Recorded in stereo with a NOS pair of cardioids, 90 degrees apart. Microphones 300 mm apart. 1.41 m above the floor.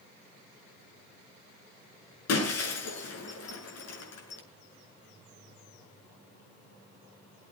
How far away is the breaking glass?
About 7 m.